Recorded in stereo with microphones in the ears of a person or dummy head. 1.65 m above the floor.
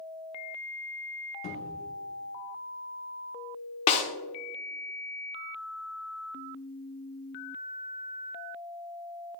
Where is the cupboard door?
30° left (ahead or behind), 1.0 m.